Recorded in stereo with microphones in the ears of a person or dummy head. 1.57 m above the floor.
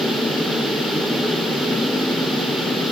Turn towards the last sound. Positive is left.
No sound to turn to.